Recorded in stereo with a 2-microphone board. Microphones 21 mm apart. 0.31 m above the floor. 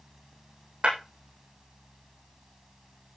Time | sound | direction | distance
0.8 | breaking glass | 70° right (ahead or behind) | 10 m